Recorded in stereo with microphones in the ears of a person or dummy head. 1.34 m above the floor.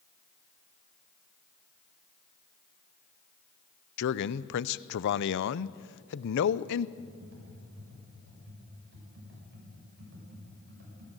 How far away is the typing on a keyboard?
About 7.5 m.